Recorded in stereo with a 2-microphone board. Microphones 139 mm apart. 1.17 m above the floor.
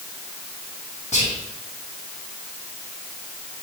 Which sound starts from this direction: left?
Whispering, at 1.1 s.